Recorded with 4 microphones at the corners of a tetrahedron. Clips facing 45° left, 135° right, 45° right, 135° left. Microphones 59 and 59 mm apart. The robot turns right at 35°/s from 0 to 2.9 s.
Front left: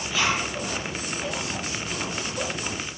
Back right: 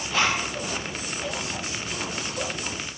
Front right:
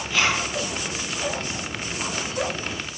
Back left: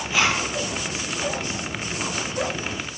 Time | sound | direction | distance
0.1 | a zipper | 155° right | 4 m